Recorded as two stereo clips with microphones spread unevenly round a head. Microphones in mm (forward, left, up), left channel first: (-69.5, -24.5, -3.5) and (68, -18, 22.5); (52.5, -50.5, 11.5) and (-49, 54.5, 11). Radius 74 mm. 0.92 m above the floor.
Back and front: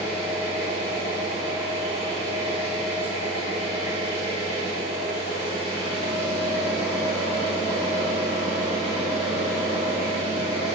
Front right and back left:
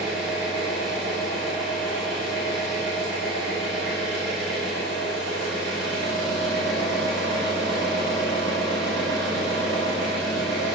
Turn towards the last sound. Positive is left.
turn(degrees=130)